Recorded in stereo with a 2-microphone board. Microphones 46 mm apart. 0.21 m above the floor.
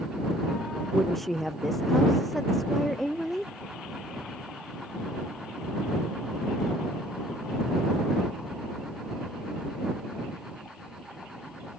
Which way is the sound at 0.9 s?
5° left (ahead or behind).